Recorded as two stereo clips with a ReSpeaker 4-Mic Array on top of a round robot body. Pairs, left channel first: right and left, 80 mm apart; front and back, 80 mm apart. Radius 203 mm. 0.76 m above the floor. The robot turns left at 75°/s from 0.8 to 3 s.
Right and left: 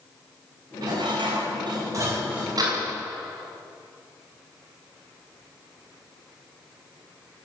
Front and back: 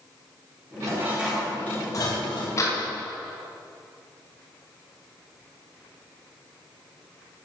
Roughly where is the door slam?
Ahead left.